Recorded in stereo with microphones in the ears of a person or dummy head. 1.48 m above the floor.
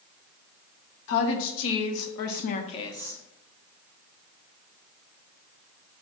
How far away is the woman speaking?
About 1.1 m.